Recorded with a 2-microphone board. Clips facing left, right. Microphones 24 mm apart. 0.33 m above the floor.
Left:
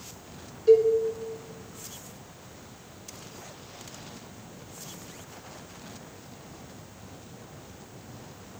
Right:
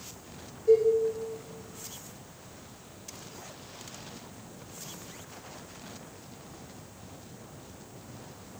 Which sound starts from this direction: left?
A cowbell, at 0.7 s.